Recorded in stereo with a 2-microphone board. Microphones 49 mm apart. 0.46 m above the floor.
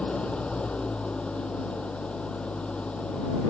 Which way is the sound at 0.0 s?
20° left (ahead or behind).